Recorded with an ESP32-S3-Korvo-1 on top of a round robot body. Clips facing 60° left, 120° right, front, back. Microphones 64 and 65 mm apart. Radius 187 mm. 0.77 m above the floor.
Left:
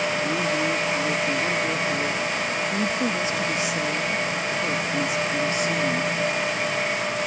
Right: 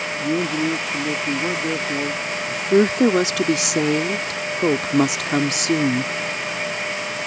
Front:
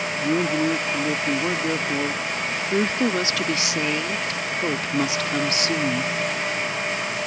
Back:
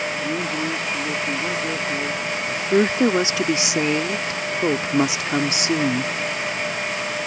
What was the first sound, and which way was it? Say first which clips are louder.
A man speaking: right 2 dB, front 3 dB; 60° right.